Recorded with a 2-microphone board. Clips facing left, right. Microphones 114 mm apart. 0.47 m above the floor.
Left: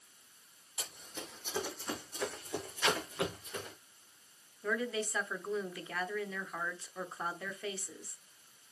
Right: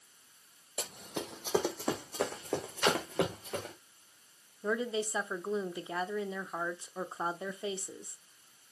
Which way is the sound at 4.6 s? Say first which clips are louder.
Right 2 dB; 20° right (ahead or behind).